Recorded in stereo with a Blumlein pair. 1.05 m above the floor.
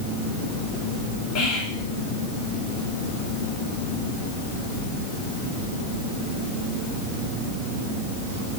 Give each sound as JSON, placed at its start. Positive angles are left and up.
{"t": 1.4, "sound": "whispering", "azimuth_deg": 35, "distance_m": 1.6}